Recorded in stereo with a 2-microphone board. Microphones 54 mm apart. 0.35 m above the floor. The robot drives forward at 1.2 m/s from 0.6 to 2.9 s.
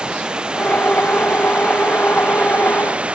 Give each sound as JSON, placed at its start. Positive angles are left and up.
{"t": 0.0, "sound": "running water", "side_deg": -15}